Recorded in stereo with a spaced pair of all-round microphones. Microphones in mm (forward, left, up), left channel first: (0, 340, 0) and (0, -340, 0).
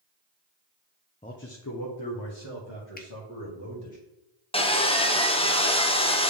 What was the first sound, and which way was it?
A man speaking, 10° left (ahead or behind).